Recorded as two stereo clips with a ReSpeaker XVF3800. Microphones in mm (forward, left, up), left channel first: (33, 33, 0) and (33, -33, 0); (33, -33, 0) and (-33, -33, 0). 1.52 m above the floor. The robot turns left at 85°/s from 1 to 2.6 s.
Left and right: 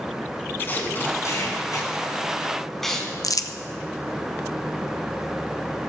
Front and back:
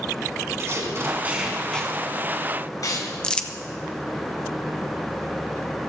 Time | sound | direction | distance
0.6 | tape being pulled | 140° left | 3 m
3.2 | crumpling | 75° left | 0.8 m